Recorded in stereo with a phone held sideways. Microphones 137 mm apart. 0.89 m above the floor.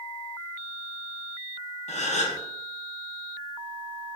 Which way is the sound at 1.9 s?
60° left (ahead or behind).